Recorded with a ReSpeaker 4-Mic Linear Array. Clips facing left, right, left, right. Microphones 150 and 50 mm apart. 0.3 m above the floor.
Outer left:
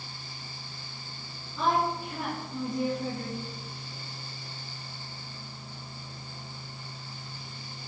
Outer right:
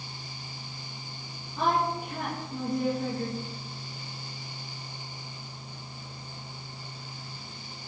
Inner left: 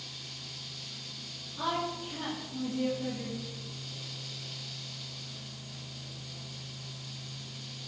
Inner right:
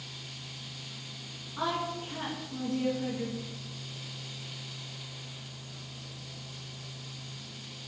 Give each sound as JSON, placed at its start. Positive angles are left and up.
{"t": 1.6, "sound": "a woman speaking", "side_deg": -60, "distance_m": 2.5}